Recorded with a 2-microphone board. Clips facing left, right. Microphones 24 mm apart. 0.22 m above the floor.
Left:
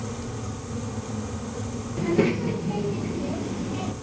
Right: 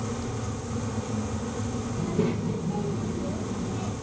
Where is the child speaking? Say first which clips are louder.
Left 6 dB; 75° left (ahead or behind), 2.5 m; by 3.9 s 60° left (ahead or behind), 3 m.